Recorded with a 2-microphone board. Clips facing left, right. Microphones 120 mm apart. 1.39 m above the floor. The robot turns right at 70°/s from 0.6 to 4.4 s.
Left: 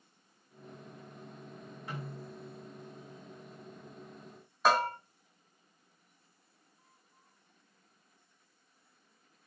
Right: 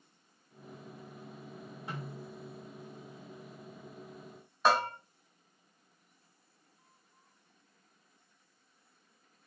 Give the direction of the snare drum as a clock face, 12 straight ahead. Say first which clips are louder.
Even; 1 o'clock.